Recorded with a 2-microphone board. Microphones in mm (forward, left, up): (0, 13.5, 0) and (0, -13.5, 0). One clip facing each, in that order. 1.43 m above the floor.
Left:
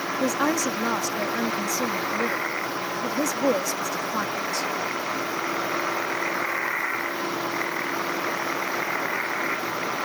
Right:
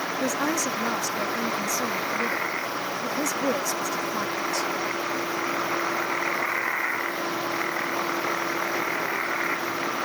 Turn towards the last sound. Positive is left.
turn(degrees=20)  # may be behind; listen again after turning